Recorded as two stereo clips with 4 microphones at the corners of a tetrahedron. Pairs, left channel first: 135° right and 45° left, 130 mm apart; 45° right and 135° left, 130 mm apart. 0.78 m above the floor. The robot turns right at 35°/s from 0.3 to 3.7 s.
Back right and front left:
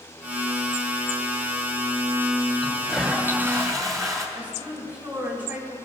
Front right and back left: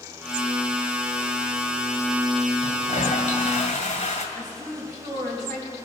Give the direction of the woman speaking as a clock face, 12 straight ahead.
8 o'clock.